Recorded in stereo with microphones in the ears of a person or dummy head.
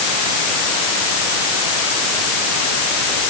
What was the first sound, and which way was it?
Only background noise.